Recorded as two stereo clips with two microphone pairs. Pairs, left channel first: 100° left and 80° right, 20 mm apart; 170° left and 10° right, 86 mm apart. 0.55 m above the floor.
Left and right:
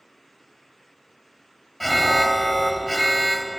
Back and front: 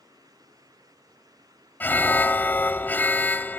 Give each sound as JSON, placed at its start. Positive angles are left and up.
{"t": 1.8, "sound": "an alarm", "azimuth_deg": 180, "distance_m": 0.7}